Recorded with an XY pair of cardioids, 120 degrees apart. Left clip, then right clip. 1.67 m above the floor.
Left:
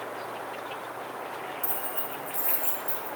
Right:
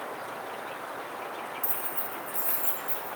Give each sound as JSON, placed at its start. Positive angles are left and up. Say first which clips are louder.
{"t": 1.6, "sound": "keys jangling", "louder": "left 1 dB", "azimuth_deg": 10, "distance_m": 4.0}